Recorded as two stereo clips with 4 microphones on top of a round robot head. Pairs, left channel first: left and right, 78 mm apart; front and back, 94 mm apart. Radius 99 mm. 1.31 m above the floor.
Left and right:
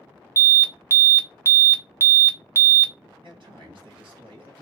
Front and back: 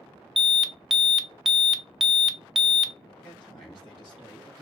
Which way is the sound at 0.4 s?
95° right.